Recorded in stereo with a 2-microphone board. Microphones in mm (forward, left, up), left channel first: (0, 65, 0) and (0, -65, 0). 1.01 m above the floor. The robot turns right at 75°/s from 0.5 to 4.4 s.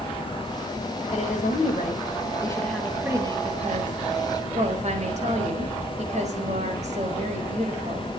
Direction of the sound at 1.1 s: 50° left.